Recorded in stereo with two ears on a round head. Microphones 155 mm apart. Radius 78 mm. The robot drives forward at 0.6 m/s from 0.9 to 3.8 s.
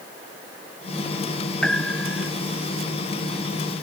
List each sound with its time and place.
1.6 s a piano: 5° left (ahead or behind)